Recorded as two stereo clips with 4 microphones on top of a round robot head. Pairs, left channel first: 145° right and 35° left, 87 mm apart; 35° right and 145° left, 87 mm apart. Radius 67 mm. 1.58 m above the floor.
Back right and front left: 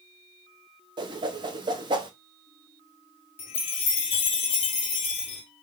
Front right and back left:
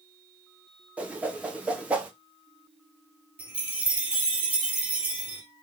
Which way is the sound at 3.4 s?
145° right.